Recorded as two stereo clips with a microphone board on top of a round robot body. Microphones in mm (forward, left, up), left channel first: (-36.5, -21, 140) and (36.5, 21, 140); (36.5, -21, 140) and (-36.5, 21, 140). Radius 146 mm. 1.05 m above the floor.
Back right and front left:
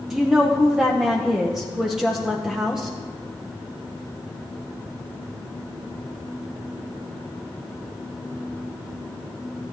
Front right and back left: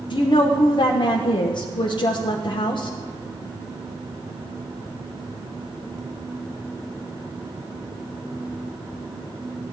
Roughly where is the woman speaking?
Ahead right.